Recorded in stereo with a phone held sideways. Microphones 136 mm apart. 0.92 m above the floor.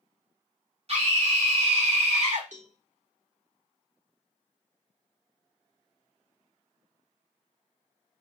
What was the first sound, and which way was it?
A scream, 45° right (ahead or behind).